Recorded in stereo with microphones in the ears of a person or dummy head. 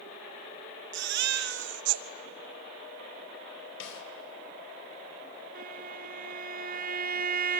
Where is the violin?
40° right (ahead or behind), 0.7 m.